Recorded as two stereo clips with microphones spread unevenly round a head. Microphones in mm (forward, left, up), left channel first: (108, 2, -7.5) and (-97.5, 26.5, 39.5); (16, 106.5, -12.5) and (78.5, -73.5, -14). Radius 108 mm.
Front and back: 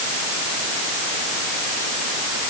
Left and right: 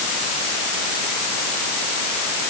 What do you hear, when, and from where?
Only background noise.